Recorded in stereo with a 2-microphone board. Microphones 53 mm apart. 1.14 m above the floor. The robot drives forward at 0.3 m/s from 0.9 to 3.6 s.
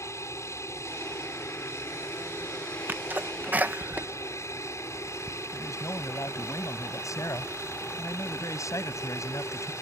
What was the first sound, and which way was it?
An aircraft, 65° left (ahead or behind).